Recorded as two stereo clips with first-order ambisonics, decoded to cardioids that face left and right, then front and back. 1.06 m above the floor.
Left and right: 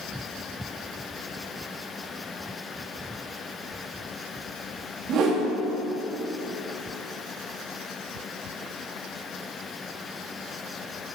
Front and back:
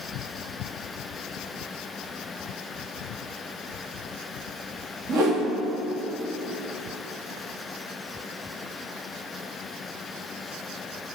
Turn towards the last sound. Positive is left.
turn(degrees=-130)